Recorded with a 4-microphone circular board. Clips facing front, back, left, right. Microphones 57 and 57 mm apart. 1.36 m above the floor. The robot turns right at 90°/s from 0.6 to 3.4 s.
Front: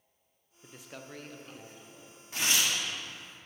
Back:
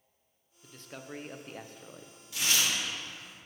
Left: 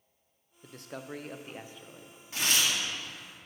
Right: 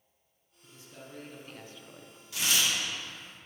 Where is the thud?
No thud in this recording.